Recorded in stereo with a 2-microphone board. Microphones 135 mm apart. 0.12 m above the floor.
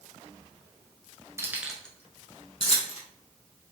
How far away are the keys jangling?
About 1.2 m.